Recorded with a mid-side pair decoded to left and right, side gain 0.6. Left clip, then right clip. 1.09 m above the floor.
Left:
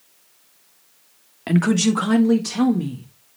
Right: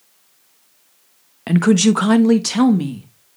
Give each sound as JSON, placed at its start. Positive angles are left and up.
{"t": 1.5, "sound": "a woman speaking", "azimuth_deg": -15, "distance_m": 1.1}